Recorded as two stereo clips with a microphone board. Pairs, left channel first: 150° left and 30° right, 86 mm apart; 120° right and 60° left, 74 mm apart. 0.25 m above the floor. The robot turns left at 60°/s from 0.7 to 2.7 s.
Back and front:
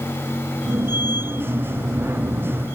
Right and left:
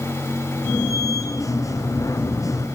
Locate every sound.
Only background noise.